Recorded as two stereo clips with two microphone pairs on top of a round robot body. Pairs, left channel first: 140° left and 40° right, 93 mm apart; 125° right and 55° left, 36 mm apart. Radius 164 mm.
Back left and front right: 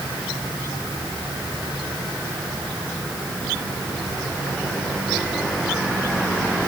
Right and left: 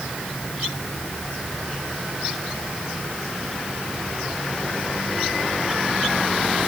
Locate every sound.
Only background noise.